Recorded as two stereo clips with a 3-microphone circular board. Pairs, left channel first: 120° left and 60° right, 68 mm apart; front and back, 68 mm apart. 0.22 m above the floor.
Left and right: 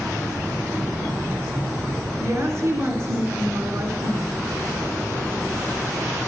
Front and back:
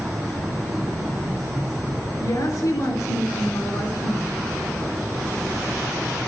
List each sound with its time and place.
2.2 s a woman speaking: 20° right, 3.5 m